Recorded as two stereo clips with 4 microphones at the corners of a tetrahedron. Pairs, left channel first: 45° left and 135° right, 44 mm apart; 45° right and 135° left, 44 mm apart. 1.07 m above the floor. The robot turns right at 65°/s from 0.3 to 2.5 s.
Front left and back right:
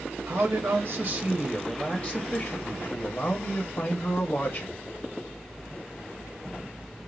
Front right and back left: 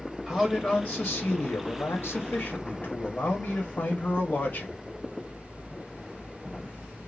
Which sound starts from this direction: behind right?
A man speaking, at 0.3 s.